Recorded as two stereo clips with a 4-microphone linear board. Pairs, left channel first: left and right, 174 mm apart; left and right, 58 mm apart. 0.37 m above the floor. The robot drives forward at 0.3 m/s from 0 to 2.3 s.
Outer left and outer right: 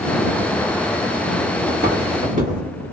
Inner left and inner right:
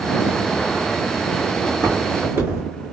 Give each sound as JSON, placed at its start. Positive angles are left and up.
{"t": 1.7, "sound": "footsteps", "side_deg": -60, "distance_m": 1.4}